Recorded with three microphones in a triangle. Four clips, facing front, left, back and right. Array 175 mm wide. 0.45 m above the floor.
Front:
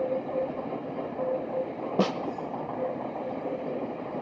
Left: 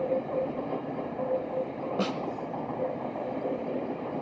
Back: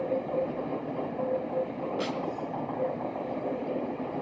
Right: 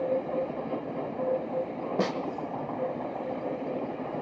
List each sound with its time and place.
2.0 s a snare drum: 10° right, 1.0 m